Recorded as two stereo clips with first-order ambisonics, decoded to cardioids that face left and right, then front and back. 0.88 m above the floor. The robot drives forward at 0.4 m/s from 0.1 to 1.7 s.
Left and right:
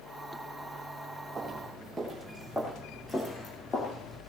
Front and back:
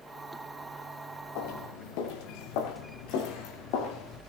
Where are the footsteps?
20° right, 5 m; by 4.2 s 25° left, 6 m.